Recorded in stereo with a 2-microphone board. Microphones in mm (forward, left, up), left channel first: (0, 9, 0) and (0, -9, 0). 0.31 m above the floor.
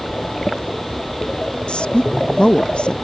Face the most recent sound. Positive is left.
turn(degrees=65)  # may be behind; listen again after turning